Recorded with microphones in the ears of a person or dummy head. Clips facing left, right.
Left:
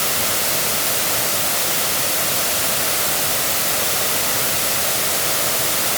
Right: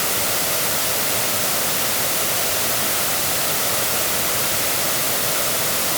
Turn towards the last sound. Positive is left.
No sound to turn to.